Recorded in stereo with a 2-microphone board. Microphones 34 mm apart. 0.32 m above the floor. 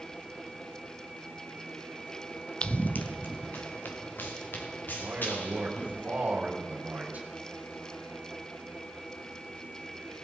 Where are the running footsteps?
35° left (ahead or behind), 0.6 m; by 6.0 s 75° left (ahead or behind), 5 m.